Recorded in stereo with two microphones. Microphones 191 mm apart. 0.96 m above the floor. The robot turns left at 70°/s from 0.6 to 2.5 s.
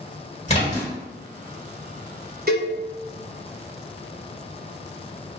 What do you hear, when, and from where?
0.5 s a splash: 35° left (ahead or behind), 1.5 m; by 0.9 s 55° left (ahead or behind), 1.5 m
2.5 s a cowbell: 55° right (ahead or behind), 0.7 m